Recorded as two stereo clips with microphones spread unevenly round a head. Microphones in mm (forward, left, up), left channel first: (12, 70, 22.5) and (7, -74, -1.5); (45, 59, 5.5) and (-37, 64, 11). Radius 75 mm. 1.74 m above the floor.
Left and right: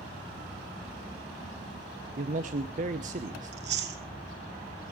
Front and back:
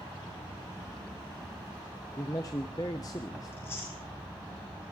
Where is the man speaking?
60° right, 0.9 m.